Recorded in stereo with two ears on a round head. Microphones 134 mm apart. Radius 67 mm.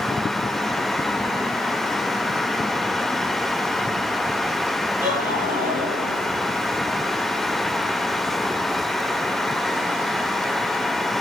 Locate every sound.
5.0 s laughter: 15° right (ahead or behind), 7 m